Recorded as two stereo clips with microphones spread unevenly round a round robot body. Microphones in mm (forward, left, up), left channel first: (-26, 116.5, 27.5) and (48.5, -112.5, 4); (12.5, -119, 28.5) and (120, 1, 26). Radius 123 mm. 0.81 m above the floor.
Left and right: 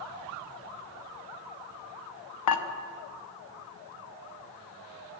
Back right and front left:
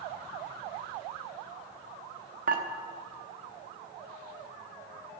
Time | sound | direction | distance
2.5 | dishes clattering | 95° left | 0.8 m